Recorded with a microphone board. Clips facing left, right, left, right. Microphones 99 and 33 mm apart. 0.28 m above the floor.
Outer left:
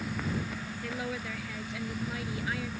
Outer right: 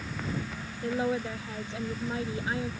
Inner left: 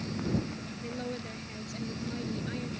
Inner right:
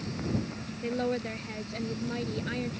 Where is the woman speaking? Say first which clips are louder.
Outer right 9 dB, inner right 9 dB; 30° right (ahead or behind).